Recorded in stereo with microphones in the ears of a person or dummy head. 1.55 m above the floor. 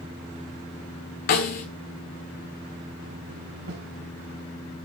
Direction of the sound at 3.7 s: 65° right (ahead or behind).